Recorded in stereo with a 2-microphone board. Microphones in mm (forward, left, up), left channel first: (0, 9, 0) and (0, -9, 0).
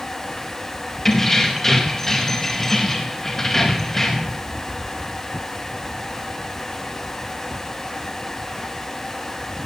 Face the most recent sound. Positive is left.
turn(degrees=20)  # may be behind; listen again after turning